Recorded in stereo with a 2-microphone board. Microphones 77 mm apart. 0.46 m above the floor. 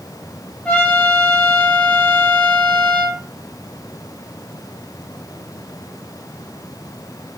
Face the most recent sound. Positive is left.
turn(degrees=15)  # may be behind; listen again after turning